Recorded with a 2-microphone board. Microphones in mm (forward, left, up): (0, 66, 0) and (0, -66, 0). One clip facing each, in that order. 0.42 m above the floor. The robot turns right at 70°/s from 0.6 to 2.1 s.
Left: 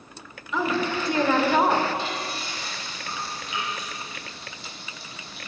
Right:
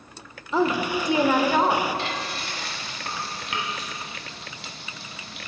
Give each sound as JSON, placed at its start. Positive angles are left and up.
{"t": 0.5, "sound": "a woman speaking", "azimuth_deg": -60, "distance_m": 1.1}
{"t": 2.0, "sound": "frying", "side_deg": -70, "distance_m": 1.9}